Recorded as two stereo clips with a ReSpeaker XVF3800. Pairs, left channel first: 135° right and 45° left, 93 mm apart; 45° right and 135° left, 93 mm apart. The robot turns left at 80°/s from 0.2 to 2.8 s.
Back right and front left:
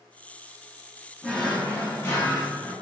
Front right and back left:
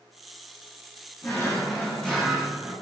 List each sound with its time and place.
1.2 s a drawer: 55° right, 0.9 m; by 2.7 s 175° right, 0.9 m